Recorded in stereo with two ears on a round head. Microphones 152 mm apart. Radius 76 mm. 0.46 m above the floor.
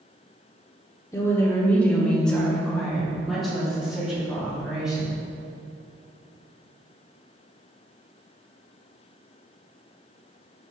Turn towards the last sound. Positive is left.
turn(degrees=-5)  # may be behind; listen again after turning